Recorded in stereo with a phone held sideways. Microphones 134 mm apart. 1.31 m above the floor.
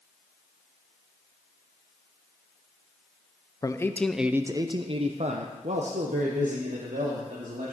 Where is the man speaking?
30° left (ahead or behind), 0.6 m; by 7.8 s 80° right, 2 m.